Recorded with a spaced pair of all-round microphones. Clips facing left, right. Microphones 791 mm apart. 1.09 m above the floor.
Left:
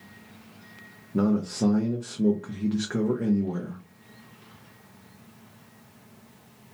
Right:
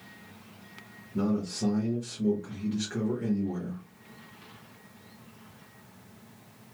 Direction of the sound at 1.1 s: 80° left.